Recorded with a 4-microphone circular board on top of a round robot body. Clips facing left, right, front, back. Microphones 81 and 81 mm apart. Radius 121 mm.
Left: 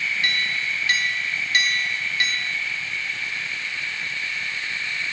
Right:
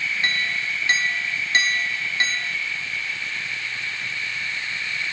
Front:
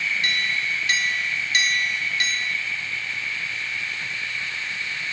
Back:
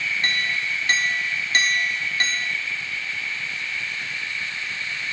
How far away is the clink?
About 0.8 m.